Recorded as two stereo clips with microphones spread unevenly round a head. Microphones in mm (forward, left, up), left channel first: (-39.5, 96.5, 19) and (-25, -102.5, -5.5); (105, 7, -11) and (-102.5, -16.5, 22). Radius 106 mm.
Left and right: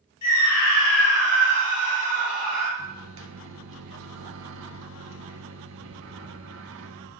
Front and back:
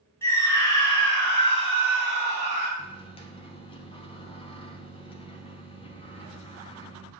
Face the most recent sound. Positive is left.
turn(degrees=-60)